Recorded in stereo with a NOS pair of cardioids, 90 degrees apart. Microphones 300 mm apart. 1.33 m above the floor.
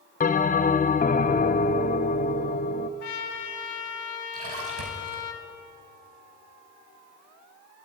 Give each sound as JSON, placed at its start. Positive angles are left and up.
{"t": 0.2, "sound": "a bell", "azimuth_deg": 25, "distance_m": 0.9}
{"t": 3.0, "sound": "a trumpet", "azimuth_deg": 70, "distance_m": 2.5}
{"t": 4.3, "sound": "a splash", "azimuth_deg": -50, "distance_m": 5.0}